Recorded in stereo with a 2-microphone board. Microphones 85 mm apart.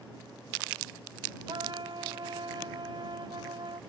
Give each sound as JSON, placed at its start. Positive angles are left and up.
{"t": 1.5, "sound": "a trumpet", "side_deg": -65}